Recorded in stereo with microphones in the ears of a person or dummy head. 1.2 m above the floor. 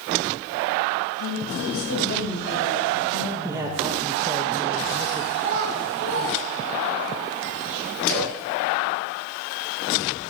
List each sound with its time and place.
1.2 s a woman speaking: 75° left (ahead or behind), 8 m
3.4 s a man speaking: 15° right (ahead or behind), 1.8 m
5.3 s a child speaking: 45° right (ahead or behind), 6.5 m
8.1 s a splash: 5° left (ahead or behind), 8.5 m